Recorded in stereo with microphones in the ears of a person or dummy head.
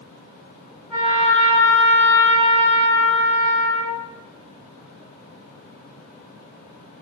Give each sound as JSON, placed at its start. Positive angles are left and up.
{"t": 0.9, "sound": "a trumpet", "side_deg": 0, "distance_m": 1.7}